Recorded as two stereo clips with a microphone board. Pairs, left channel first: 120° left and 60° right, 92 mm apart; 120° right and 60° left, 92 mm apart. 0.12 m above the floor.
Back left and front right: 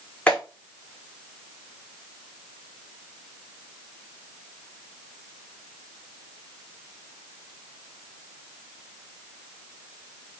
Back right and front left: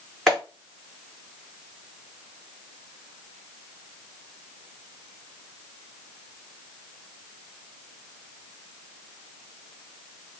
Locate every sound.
0.3 s a clap: 165° left, 1.3 m